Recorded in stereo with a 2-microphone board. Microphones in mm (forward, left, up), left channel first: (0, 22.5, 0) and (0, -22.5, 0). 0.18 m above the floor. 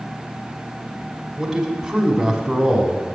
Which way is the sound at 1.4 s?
10° right (ahead or behind).